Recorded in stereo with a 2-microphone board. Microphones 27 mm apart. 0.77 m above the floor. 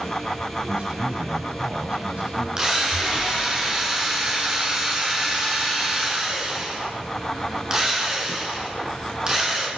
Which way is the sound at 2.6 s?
20° right (ahead or behind).